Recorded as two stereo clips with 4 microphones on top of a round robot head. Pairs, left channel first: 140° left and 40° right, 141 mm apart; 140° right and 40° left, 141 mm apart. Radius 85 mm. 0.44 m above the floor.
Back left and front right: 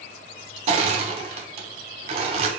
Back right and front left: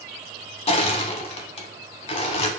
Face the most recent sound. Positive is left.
turn(degrees=-90)